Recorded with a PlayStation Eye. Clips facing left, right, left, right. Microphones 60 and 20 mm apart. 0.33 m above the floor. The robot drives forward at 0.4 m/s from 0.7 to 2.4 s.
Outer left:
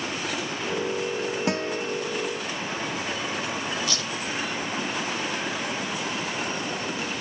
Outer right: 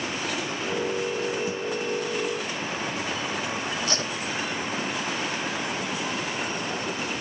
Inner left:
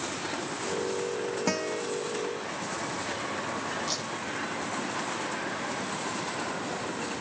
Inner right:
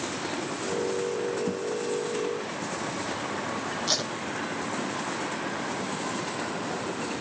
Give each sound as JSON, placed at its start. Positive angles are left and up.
{"t": 1.5, "sound": "a guitar", "side_deg": 75}
{"t": 3.9, "sound": "tape being pulled", "side_deg": -35}